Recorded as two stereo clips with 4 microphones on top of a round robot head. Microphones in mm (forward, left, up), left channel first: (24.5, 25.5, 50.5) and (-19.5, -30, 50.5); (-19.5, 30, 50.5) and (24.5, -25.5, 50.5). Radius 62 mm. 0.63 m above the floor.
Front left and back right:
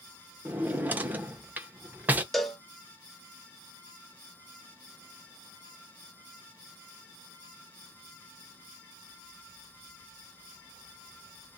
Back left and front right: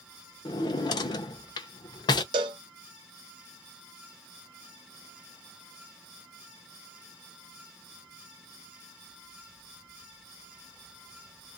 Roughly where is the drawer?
Behind.